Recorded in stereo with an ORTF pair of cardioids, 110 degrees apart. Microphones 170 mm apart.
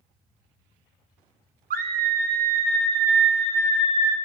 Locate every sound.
1.7 s a scream: 55° right, 1.3 m; by 4.2 s 70° right, 4 m